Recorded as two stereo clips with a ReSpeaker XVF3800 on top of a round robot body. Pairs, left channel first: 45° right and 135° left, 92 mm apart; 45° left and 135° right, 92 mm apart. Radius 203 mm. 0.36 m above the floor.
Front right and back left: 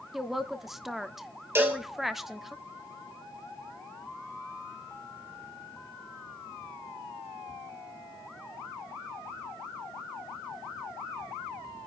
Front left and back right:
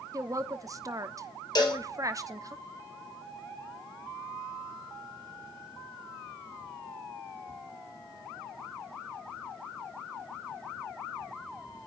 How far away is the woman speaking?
About 1.4 m.